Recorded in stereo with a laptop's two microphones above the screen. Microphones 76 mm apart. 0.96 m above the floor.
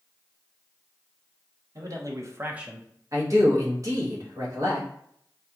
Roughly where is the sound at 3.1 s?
Right.